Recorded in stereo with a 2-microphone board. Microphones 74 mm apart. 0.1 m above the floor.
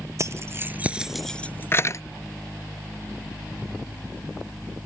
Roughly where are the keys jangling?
Right.